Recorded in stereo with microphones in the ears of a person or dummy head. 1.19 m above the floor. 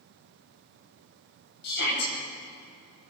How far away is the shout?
About 8 m.